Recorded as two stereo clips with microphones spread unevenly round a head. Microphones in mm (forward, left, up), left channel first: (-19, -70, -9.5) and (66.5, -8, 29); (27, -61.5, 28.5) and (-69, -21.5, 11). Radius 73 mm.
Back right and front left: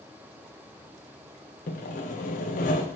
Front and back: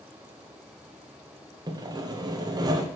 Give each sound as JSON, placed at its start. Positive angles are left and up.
{"t": 1.7, "sound": "sawing", "azimuth_deg": -150, "distance_m": 0.9}